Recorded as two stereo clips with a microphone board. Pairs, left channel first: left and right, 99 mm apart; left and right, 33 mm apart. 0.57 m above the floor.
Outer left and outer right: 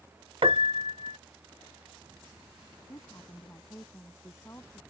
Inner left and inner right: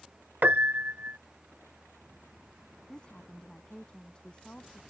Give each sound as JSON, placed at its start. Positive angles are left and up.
{"t": 0.4, "sound": "a piano", "side_deg": -65}
{"t": 2.9, "sound": "a woman speaking", "side_deg": 30}